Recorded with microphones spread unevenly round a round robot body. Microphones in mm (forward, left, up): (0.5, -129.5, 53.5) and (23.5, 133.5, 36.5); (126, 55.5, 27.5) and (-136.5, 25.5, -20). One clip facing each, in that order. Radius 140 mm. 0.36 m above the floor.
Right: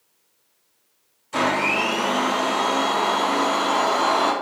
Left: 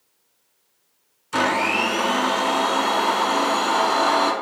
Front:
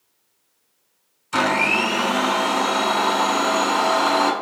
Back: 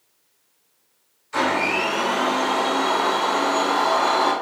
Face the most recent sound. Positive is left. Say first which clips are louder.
# even, front 1 dB
turn(degrees=20)